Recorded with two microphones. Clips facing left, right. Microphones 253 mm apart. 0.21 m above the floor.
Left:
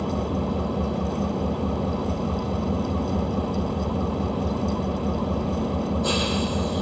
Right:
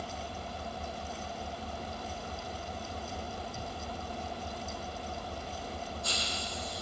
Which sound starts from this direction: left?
An engine running, at 0.0 s.